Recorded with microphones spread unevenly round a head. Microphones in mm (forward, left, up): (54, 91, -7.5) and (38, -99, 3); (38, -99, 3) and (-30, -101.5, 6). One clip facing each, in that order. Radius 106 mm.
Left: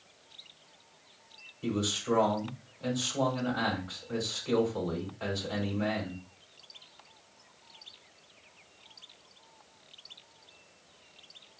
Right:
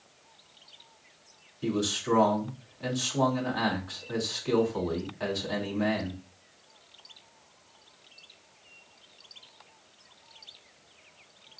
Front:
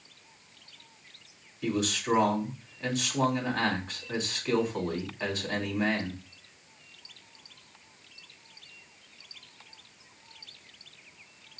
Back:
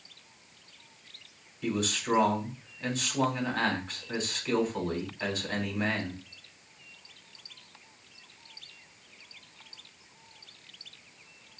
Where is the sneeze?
No sneeze in this recording.